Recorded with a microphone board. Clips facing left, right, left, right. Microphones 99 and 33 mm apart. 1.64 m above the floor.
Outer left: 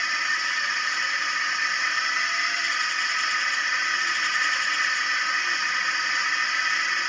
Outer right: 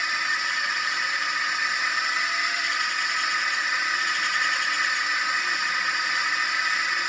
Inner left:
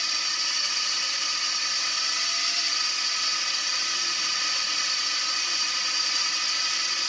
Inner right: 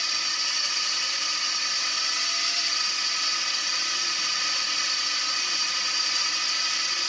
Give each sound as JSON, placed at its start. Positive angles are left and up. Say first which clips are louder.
{"t": 0.0, "sound": "a drone", "louder": "even, even", "side_deg": -5}